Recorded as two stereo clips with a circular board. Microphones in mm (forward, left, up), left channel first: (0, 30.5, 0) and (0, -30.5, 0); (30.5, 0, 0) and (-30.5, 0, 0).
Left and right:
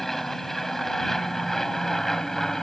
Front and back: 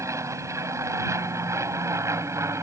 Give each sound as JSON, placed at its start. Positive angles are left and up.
{"t": 0.0, "sound": "an aircraft", "azimuth_deg": 175}